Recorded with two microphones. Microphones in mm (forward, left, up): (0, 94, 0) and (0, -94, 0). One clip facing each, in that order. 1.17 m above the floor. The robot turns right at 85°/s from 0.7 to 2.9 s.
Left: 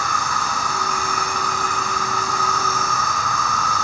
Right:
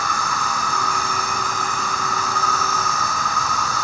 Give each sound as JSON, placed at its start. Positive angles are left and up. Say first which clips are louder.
{"t": 0.0, "sound": "an insect", "louder": "even", "azimuth_deg": 25, "distance_m": 2.5}